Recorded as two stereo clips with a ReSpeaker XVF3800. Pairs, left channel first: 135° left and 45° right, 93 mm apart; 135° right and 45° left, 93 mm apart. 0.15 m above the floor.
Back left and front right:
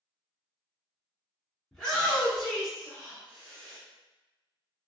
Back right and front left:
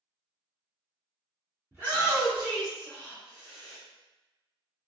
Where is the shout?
55° left, 1.6 m; by 3.8 s 110° right, 1.7 m.